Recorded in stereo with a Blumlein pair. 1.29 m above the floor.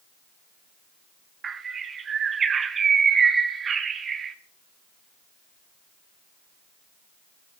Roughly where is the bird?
Ahead.